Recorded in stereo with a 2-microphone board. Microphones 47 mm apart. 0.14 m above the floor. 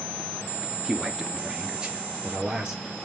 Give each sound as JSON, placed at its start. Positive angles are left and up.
{"t": 0.8, "sound": "a man speaking", "side_deg": -5, "distance_m": 2.0}